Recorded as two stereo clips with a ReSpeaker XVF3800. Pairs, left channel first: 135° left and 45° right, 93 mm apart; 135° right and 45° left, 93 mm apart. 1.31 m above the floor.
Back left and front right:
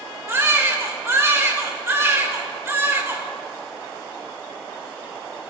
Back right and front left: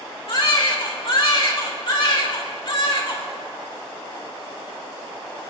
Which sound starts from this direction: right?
A baby crying, at 0.3 s.